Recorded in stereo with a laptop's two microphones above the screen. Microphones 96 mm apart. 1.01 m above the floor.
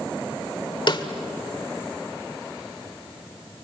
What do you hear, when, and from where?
0.9 s a snare drum: 55° left (ahead or behind), 1.5 m